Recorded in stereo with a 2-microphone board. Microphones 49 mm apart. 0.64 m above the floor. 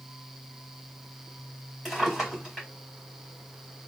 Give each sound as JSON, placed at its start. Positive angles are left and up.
{"t": 1.9, "sound": "a drawer", "side_deg": -5, "distance_m": 2.0}